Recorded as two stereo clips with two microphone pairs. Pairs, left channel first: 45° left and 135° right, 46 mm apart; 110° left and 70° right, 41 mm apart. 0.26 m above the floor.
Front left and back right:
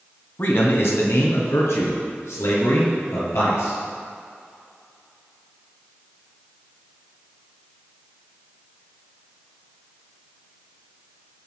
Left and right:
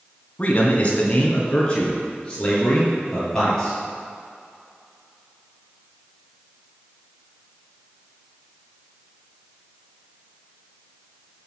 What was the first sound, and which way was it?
A man speaking, 65° left.